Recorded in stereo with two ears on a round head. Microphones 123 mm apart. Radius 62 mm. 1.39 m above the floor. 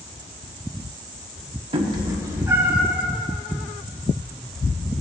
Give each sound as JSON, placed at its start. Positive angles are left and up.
{"t": 1.7, "sound": "a cat meowing", "side_deg": -40, "distance_m": 1.2}